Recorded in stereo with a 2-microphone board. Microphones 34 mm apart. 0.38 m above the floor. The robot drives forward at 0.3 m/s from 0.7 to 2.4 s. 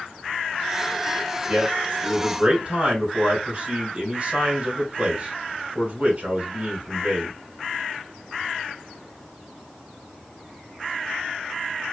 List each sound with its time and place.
1.5 s a man speaking: 40° right (ahead or behind), 1.9 m; by 7.3 s 35° right (ahead or behind), 2 m